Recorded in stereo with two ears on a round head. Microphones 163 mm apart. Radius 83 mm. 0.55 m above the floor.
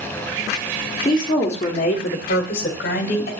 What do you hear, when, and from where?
1.1 s a woman speaking: 20° left (ahead or behind), 1.4 m; by 3.3 s 50° left (ahead or behind), 2.5 m